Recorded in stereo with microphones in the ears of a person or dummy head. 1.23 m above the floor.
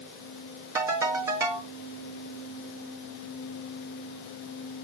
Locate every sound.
0.8 s a ringtone: 20° right (ahead or behind), 2 m